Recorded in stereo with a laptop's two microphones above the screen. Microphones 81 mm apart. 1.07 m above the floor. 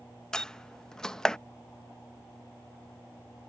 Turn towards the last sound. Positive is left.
turn(degrees=10)  # may be behind; listen again after turning